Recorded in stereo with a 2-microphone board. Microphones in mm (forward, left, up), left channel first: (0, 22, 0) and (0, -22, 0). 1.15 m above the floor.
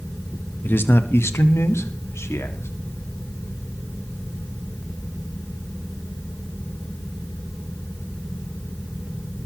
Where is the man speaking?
45° left (ahead or behind), 1.2 m; by 2.7 s 85° left, 2.5 m.